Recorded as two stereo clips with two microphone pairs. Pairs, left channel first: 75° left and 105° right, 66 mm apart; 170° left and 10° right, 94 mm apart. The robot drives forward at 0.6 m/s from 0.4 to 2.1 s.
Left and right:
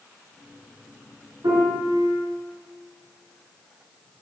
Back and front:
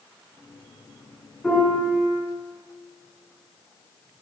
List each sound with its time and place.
1.4 s a piano: 105° right, 5 m